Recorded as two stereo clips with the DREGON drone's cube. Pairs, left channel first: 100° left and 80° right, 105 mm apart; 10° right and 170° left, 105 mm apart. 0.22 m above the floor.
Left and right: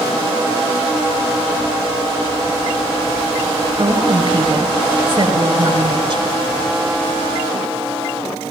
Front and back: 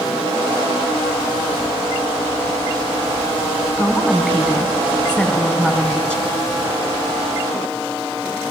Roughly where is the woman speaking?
Right.